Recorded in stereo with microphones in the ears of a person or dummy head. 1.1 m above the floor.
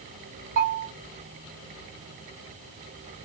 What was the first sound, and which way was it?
A bell, 35° right (ahead or behind).